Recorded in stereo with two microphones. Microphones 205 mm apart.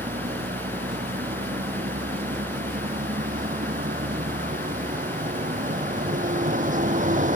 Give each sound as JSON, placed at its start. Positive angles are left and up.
{"t": 0.0, "sound": "a vehicle", "side_deg": -45}